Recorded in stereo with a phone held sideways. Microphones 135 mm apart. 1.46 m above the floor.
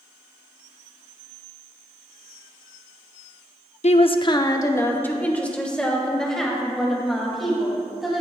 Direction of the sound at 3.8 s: 55° left (ahead or behind).